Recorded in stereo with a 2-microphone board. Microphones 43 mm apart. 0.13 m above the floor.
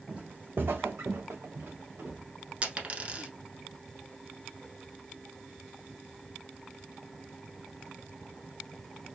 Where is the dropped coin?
30° right (ahead or behind), 0.7 m.